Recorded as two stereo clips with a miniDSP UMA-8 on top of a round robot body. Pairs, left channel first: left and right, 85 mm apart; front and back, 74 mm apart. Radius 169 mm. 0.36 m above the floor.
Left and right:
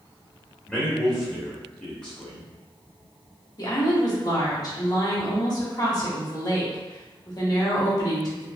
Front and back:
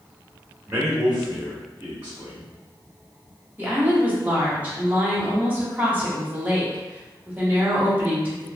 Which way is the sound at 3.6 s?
120° left.